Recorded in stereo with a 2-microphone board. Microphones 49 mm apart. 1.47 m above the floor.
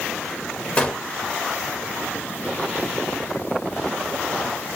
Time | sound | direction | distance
0.8 | a gunshot | 25° left (ahead or behind) | 1.3 m